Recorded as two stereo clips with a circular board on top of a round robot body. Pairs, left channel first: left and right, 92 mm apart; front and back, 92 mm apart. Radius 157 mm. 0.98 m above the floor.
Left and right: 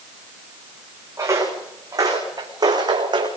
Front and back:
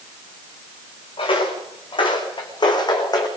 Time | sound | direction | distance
1.2 | footsteps | 30° right | 6 m